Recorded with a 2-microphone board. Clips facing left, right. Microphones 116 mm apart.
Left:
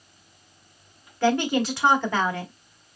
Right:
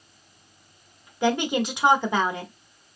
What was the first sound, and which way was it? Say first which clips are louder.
A woman speaking: left 1 dB; 15° right (ahead or behind).